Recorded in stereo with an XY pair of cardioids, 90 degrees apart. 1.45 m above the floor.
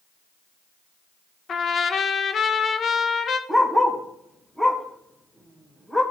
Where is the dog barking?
15° left, 2.5 m.